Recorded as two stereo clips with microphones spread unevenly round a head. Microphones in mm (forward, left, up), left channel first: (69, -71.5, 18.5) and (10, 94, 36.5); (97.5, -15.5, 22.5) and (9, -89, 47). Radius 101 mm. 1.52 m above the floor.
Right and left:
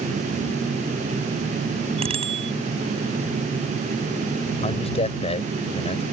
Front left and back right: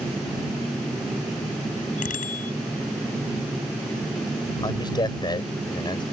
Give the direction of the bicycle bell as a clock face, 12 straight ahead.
10 o'clock.